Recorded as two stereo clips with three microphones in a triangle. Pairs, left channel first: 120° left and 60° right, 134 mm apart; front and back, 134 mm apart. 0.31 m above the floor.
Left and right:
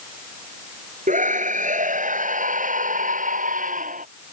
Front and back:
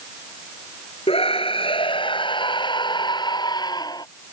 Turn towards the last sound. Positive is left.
turn(degrees=-60)